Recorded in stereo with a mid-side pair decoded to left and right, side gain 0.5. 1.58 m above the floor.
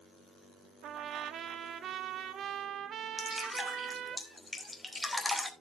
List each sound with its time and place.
0.8 s a trumpet: 60° right, 0.7 m
3.2 s dripping: 10° left, 2.5 m